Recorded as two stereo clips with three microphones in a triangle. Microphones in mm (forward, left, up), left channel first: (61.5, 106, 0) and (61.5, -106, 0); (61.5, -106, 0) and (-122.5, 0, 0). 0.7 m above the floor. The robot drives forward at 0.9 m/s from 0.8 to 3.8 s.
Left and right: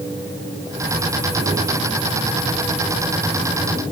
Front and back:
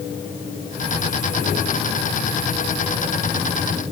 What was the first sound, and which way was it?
Only background noise.